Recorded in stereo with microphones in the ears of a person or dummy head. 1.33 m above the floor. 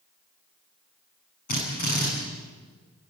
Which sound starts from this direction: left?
A drill, at 1.5 s.